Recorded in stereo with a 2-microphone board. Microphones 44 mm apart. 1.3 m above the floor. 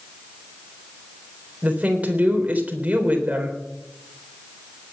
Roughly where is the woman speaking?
Right.